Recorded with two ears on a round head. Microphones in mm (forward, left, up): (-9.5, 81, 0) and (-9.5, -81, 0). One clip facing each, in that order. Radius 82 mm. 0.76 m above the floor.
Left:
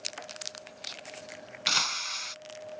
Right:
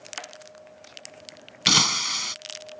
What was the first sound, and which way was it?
Breaking glass, 65° right (ahead or behind).